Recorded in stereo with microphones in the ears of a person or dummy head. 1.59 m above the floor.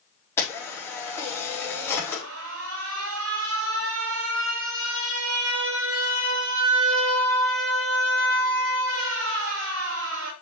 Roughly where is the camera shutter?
Centre.